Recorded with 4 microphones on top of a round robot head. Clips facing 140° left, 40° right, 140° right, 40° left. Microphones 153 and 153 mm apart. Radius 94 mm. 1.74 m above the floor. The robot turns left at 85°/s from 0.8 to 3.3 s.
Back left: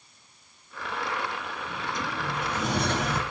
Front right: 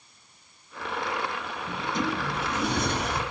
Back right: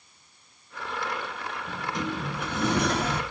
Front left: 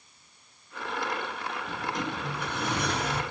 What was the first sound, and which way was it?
A sliding door, 85° right.